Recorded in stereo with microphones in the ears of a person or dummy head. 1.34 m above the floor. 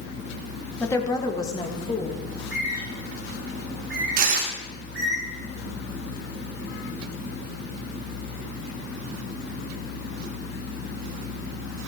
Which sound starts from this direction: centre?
A woman speaking, at 0.8 s.